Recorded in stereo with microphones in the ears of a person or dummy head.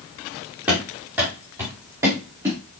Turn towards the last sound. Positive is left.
turn(degrees=-15)  # may be behind; listen again after turning